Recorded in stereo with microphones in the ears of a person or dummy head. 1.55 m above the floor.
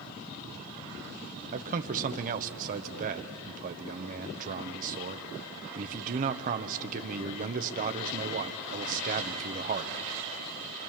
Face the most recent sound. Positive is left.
turn(degrees=-45)  # may be behind; listen again after turning